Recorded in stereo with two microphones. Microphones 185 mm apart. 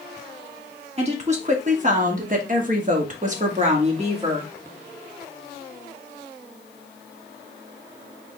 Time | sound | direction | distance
1.0 | a woman speaking | 35° right (ahead or behind) | 1.5 m